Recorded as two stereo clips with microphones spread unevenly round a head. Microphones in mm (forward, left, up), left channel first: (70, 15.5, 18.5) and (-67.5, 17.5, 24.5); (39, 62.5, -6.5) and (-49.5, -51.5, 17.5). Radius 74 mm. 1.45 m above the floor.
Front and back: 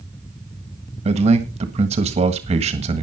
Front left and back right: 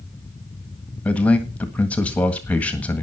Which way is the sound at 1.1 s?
135° left.